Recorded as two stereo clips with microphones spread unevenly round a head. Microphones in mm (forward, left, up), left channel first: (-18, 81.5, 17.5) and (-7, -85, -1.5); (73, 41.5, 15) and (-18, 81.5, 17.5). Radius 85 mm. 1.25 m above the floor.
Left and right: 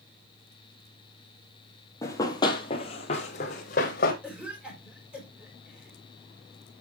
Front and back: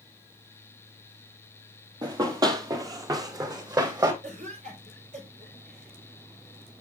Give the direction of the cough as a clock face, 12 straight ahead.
6 o'clock.